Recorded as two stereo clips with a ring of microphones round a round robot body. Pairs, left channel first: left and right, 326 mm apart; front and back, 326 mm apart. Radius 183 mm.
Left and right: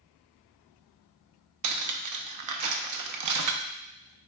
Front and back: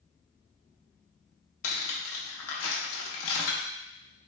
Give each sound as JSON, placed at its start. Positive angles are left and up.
{"t": 1.6, "sound": "cutlery clinking", "azimuth_deg": -55, "distance_m": 0.6}